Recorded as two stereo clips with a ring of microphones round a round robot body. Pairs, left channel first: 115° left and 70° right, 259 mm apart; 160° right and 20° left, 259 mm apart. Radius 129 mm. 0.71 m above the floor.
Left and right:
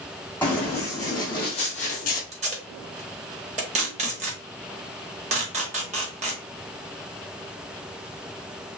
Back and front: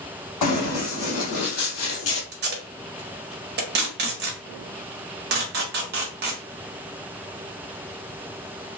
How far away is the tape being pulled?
About 1.0 m.